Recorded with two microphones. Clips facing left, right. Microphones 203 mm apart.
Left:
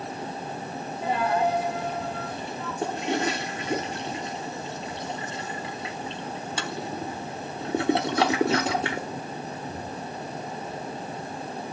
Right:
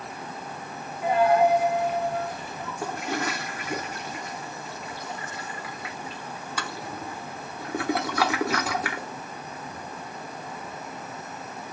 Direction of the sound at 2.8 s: 25° left (ahead or behind).